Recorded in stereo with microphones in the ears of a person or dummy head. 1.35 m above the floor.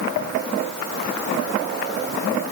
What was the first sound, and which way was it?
Only background noise.